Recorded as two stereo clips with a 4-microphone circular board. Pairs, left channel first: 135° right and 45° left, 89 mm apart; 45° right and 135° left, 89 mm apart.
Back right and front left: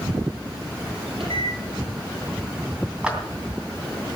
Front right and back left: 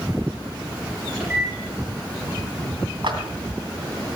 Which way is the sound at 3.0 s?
120° left.